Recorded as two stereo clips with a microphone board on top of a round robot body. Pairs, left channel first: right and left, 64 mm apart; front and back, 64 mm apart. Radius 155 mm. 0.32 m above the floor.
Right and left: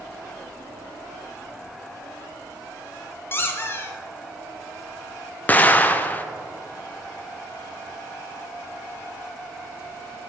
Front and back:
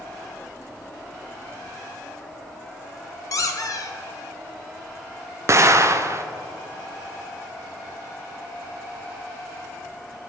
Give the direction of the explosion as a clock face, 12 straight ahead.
5 o'clock.